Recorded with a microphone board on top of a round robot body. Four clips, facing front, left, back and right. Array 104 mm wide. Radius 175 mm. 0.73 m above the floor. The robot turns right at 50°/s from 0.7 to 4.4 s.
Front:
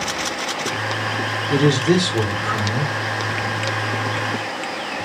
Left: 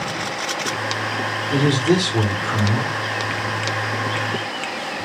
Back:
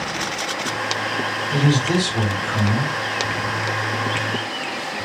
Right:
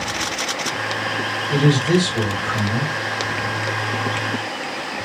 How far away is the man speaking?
About 2.5 m.